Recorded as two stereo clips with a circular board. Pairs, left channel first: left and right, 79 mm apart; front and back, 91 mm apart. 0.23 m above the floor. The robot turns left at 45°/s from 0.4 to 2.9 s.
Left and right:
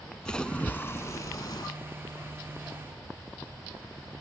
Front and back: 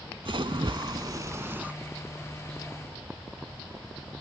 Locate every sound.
0.2 s a splash: 165° left; by 1.7 s 105° left